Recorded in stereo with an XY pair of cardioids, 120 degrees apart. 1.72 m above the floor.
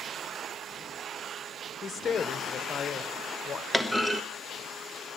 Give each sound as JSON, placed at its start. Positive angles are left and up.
{"t": 1.8, "sound": "a woman speaking", "azimuth_deg": 35, "distance_m": 1.2}
{"t": 3.7, "sound": "a clunk", "azimuth_deg": -5, "distance_m": 0.8}